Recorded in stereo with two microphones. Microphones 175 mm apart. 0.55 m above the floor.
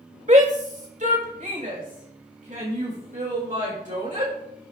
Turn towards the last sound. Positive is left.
turn(degrees=-50)  # may be behind; listen again after turning